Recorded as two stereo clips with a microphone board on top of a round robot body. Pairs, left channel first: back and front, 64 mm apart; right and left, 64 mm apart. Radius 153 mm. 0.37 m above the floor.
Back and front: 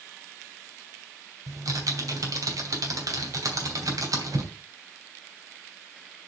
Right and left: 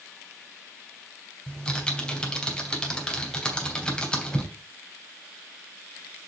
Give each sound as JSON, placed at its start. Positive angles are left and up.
{"t": 1.5, "sound": "typing on a keyboard", "azimuth_deg": -15, "distance_m": 3.0}